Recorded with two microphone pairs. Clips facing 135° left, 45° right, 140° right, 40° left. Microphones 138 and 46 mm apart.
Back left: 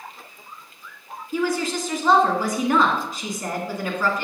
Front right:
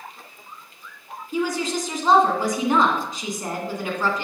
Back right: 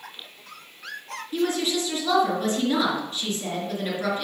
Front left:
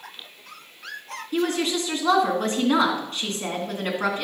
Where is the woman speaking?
25° left, 3 m.